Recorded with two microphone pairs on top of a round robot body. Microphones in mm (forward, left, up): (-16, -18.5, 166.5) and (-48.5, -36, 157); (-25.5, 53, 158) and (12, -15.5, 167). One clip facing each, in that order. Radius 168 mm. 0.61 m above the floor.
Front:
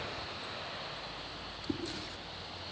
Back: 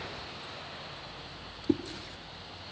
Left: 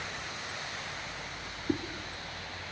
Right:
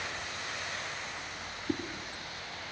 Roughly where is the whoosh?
Behind.